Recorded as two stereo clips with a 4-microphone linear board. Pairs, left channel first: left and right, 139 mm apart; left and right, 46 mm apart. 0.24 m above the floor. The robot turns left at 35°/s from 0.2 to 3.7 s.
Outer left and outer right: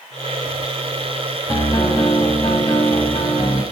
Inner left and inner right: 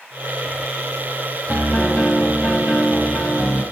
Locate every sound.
1.5 s a piano: 145° left, 1.3 m; by 3.6 s 70° left, 1.3 m